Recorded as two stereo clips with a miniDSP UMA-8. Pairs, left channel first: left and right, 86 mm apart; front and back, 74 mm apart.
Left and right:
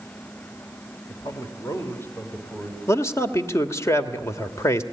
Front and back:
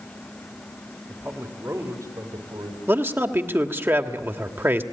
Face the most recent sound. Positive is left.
turn(degrees=135)